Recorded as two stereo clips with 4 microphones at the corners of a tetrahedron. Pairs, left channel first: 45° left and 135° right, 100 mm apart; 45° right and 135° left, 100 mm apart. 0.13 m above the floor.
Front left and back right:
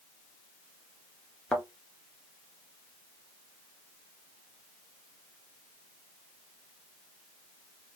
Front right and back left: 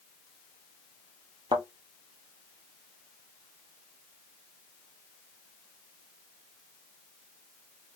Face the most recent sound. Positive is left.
turn(degrees=125)